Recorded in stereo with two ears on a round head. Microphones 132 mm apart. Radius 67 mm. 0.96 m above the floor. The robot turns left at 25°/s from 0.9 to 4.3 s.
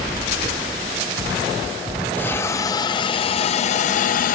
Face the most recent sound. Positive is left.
turn(degrees=115)